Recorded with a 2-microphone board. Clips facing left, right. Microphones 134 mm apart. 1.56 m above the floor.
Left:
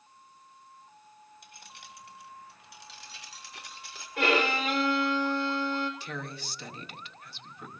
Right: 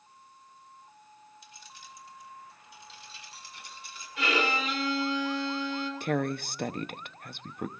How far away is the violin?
About 3.5 m.